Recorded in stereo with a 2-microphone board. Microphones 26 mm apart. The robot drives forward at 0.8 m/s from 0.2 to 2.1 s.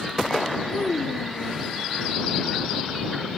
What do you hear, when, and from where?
0.7 s a child speaking: 65° left (ahead or behind); by 1.7 s 60° left (ahead or behind)